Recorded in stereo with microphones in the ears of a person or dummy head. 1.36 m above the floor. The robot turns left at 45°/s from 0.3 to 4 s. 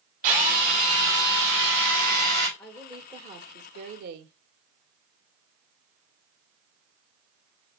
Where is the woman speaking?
5° left, 1.4 m; by 4.3 s 60° right, 1.4 m.